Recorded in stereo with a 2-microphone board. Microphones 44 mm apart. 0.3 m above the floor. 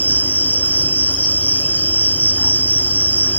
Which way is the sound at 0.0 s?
30° left (ahead or behind).